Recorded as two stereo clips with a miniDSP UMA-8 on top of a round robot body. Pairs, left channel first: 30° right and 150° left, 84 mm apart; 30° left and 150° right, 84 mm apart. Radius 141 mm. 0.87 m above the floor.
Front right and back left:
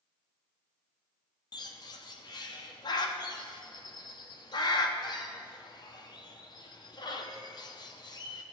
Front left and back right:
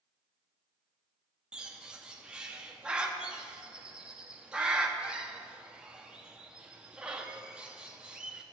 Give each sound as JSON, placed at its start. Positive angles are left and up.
{"t": 1.5, "sound": "a bird", "azimuth_deg": -70, "distance_m": 0.8}